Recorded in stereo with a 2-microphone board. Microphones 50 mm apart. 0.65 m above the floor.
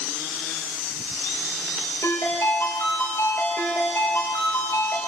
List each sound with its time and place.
2.0 s a ringtone: 65° left (ahead or behind), 5.5 m